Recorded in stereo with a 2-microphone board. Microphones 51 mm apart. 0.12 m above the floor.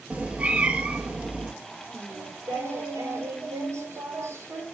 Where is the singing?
55° right (ahead or behind), 3.5 m.